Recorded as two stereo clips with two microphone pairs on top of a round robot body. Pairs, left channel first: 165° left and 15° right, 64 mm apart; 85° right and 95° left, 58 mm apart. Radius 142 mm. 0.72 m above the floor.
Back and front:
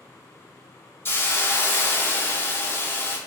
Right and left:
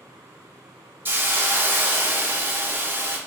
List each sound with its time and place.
1.1 s a hiss: 115° left, 1.1 m